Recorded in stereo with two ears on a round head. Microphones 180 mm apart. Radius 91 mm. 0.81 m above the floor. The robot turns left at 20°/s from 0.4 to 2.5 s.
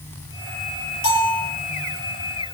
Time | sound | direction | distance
1.0 | a bell | 75° left (ahead or behind) | 9.5 m